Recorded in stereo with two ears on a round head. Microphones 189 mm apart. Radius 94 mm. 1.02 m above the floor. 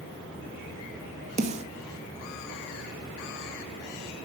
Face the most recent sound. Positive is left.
turn(degrees=-30)  # may be behind; listen again after turning